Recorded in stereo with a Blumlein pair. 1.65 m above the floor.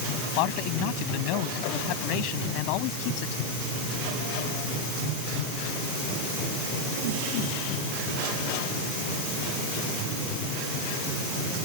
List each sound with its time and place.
0.4 s a man speaking: 45° left